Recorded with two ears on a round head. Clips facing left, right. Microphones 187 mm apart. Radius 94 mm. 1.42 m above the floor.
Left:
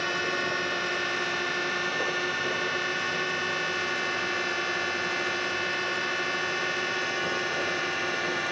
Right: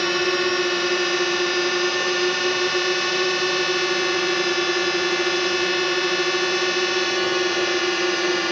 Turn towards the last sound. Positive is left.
turn(degrees=-60)  # may be behind; listen again after turning